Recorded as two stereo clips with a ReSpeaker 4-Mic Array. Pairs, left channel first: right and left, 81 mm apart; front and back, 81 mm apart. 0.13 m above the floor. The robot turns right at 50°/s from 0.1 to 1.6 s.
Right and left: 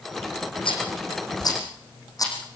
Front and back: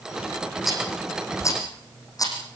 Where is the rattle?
95° right, 6.5 m; by 2.4 s 45° right, 6.5 m.